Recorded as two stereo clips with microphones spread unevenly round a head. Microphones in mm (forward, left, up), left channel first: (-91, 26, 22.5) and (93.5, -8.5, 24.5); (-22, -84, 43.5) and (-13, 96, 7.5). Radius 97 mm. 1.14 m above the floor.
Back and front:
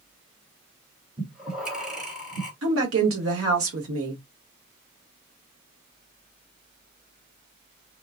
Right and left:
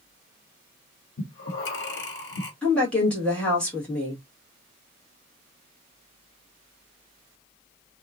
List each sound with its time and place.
1.2 s breathing: 95° right, 1.0 m
2.6 s a woman speaking: 10° right, 1.4 m